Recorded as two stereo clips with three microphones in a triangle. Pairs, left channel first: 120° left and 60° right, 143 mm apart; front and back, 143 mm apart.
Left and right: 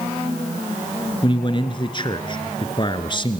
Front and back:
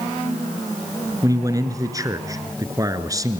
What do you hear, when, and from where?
1.2 s a man speaking: 135° left, 1.6 m